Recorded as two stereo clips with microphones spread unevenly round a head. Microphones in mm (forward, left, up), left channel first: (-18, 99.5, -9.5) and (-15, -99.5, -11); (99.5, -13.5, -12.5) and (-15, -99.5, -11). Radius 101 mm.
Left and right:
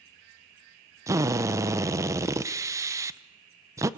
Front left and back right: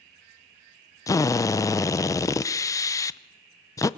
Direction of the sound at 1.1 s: 20° right.